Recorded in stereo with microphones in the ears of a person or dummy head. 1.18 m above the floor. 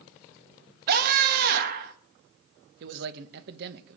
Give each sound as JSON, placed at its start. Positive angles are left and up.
{"t": 0.9, "sound": "a scream", "side_deg": -45, "distance_m": 1.6}
{"t": 2.8, "sound": "a man speaking", "side_deg": -55, "distance_m": 1.1}